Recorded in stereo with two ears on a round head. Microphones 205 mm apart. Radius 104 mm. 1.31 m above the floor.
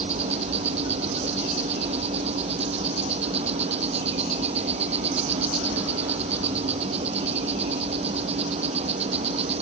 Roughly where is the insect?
Right.